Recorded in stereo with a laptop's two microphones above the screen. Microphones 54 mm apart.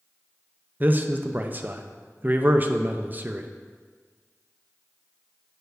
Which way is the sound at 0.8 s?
35° right (ahead or behind).